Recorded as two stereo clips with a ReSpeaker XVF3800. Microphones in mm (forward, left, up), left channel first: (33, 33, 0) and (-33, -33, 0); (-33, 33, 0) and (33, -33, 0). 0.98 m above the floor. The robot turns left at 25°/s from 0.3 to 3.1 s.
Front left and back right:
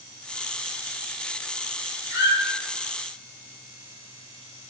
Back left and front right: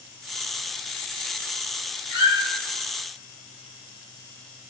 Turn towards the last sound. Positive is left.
turn(degrees=-105)